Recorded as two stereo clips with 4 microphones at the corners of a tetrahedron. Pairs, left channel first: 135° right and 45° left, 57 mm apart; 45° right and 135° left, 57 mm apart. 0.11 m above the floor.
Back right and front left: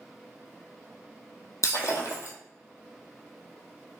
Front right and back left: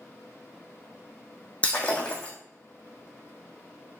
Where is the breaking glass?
110° right, 1.2 m.